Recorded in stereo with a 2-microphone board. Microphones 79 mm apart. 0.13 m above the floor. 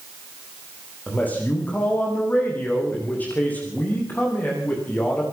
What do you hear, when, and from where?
1.1 s a man speaking: 20° left (ahead or behind), 9.5 m